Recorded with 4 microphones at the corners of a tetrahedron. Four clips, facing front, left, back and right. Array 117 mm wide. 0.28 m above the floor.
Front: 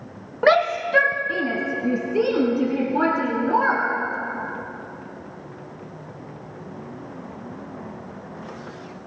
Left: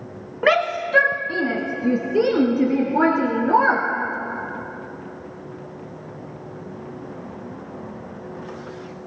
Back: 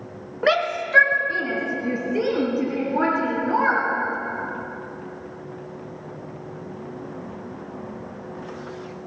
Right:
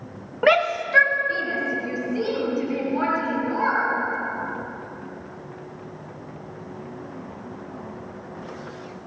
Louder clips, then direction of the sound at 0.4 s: Even, front 4 dB; 20° right.